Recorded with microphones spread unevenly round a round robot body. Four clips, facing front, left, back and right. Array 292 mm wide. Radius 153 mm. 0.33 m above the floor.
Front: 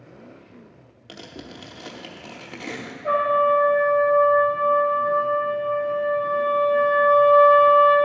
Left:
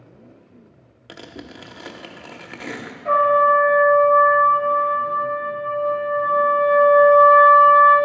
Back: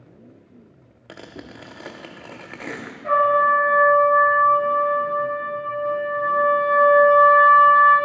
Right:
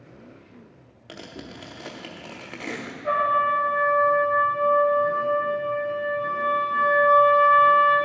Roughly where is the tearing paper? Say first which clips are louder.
Left 2 dB, back 1 dB; left.